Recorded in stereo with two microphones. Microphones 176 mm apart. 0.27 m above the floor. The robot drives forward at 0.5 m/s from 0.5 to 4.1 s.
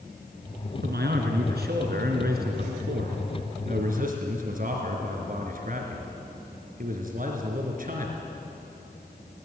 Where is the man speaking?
70° right (ahead or behind), 3 m; by 8.2 s 50° right (ahead or behind), 3.5 m.